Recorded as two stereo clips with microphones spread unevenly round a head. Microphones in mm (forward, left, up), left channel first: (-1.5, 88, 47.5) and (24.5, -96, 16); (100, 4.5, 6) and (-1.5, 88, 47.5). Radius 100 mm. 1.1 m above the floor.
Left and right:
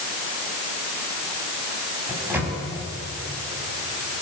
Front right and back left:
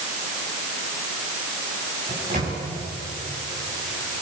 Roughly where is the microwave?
Behind.